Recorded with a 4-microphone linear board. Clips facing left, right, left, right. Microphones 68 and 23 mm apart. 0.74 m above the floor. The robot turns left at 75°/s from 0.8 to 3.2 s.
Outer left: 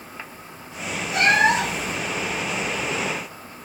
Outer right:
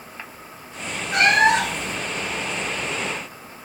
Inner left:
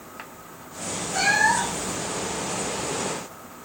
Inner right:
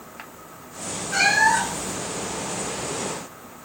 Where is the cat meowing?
70° right, 1.4 m; by 2.0 s 135° right, 1.4 m.